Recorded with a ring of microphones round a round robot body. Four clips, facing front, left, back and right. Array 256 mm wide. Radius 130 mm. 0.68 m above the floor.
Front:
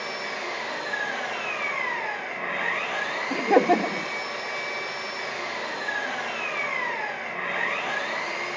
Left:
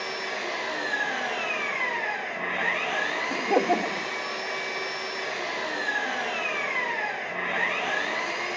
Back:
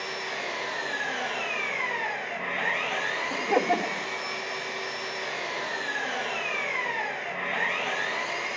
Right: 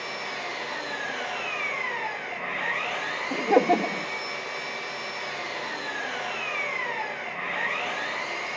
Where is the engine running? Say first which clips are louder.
Left 2 dB, front 2 dB; 105° left, 8.5 m.